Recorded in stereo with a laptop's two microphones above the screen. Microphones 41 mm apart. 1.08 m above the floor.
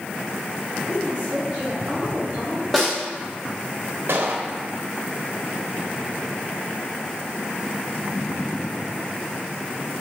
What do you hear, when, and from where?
0.9 s a woman speaking: 50° right (ahead or behind), 1.2 m
2.7 s a snare drum: centre (ahead or behind), 0.8 m
4.1 s a gunshot: 70° right (ahead or behind), 0.7 m